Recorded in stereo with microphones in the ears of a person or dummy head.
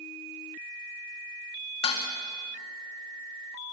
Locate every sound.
1.8 s dishes clattering: 25° left (ahead or behind), 2 m